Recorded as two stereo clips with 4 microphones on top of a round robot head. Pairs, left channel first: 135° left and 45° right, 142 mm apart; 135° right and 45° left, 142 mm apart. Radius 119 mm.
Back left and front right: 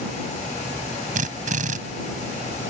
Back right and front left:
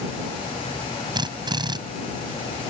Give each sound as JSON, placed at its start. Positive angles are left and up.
{"t": 1.1, "sound": "a drill", "azimuth_deg": -15}